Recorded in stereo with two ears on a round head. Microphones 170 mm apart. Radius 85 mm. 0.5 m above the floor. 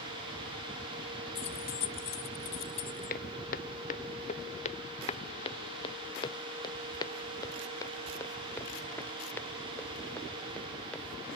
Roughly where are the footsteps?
Left.